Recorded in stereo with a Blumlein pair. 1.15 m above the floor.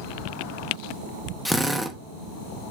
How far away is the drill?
About 0.9 m.